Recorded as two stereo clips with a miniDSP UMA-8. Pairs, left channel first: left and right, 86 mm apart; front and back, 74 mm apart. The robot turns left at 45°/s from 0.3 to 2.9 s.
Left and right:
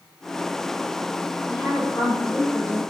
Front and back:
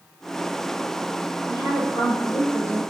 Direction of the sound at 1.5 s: 170° right.